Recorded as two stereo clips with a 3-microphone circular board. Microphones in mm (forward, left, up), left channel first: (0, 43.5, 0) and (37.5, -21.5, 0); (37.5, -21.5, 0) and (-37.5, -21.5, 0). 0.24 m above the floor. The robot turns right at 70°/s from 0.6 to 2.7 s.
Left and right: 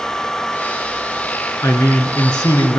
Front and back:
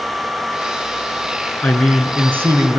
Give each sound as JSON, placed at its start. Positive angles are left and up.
{"t": 1.6, "sound": "a man speaking", "azimuth_deg": 70, "distance_m": 4.0}